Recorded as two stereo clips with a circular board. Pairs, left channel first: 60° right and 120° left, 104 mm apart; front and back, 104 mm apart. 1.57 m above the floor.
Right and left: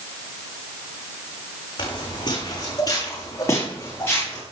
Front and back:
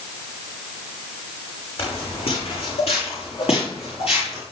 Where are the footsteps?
20° right, 6 m; by 4.4 s 10° left, 7 m.